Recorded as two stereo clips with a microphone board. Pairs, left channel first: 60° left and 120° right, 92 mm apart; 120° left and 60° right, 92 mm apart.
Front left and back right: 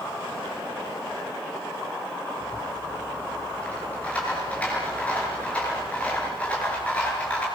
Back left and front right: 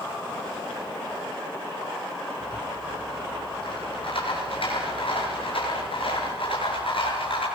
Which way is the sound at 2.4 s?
135° left.